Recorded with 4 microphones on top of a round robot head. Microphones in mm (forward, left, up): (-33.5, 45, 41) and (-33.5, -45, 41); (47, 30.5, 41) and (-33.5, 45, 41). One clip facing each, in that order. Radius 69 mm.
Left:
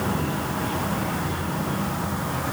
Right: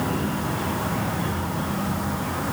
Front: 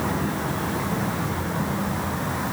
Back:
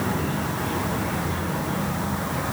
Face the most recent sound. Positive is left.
No sound to turn to.